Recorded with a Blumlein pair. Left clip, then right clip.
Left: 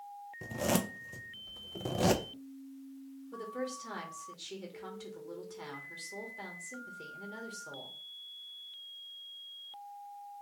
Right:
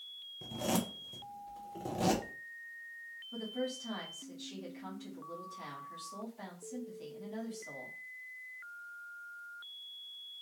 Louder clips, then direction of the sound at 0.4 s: Left 3 dB; 15° left.